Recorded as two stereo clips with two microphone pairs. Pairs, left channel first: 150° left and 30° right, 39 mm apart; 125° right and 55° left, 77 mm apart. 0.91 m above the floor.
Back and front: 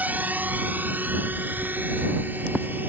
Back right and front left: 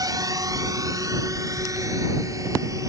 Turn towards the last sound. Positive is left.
turn(degrees=5)